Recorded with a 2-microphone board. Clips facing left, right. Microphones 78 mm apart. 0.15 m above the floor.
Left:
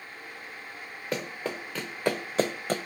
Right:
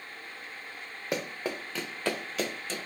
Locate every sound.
1.1 s running footsteps: 10° right (ahead or behind), 1.2 m; by 2.8 s 55° left (ahead or behind), 0.6 m